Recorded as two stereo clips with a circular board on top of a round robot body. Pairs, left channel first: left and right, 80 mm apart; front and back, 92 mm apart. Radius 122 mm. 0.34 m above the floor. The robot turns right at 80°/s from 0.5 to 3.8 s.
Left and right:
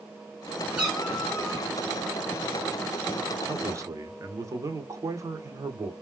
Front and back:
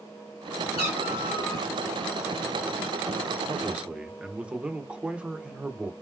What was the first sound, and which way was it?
A cat meowing, 15° right.